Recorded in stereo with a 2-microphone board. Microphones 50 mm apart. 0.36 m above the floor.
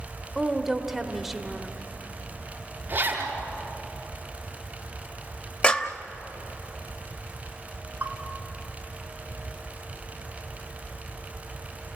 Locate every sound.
0.3 s a woman speaking: 5° right (ahead or behind), 1.4 m
2.9 s a zipper: 35° right (ahead or behind), 5 m
5.6 s a clap: 25° left (ahead or behind), 1.0 m
8.0 s a bell: 35° right (ahead or behind), 2 m